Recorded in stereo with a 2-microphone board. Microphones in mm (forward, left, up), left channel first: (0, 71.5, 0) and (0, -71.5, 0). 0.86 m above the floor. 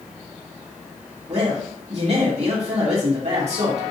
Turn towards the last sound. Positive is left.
turn(degrees=-50)  # may be behind; listen again after turning